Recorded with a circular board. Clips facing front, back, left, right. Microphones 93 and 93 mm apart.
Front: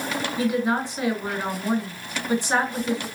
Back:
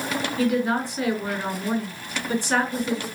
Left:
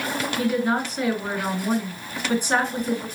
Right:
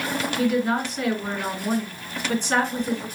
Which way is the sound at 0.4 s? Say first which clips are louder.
Back 1 dB, right 1 dB; 35° left.